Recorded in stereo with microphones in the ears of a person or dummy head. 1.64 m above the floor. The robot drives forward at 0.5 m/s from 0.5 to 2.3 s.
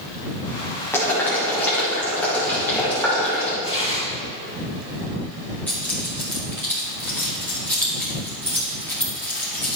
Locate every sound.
0.9 s boiling: 10° left (ahead or behind), 2 m
3.6 s tearing paper: 25° left (ahead or behind), 3.5 m
5.7 s keys jangling: 5° left (ahead or behind), 2 m